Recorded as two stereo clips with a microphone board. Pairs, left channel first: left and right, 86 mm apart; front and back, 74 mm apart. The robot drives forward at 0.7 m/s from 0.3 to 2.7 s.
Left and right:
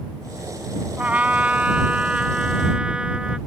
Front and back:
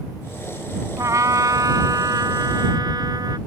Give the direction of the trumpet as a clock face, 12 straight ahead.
5 o'clock.